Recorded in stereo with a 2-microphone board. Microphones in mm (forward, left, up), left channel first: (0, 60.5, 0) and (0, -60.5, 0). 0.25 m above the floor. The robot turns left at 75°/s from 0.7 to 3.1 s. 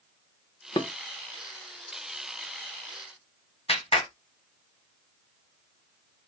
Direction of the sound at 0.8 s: 30° left (ahead or behind).